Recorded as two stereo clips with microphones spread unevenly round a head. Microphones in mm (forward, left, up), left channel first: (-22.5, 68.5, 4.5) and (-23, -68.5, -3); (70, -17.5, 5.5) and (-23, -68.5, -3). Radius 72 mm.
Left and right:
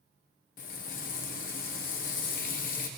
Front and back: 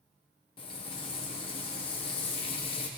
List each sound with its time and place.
0.6 s frying: 70° left, 0.8 m